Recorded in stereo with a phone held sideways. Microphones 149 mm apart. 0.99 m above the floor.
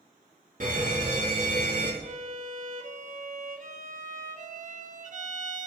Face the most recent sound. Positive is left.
turn(degrees=-55)  # may be behind; listen again after turning